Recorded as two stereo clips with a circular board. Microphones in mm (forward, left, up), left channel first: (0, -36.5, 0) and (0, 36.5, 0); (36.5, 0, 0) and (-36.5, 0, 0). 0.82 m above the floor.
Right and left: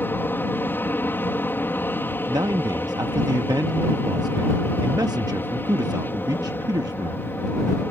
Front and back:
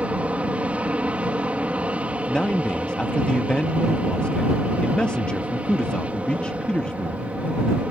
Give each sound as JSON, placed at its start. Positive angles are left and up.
{"t": 0.0, "sound": "an aircraft", "azimuth_deg": -125}
{"t": 2.3, "sound": "a man speaking", "azimuth_deg": 75}